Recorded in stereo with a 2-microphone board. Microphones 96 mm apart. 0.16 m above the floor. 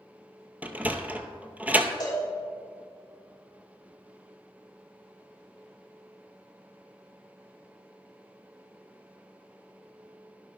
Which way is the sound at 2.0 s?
40° left (ahead or behind).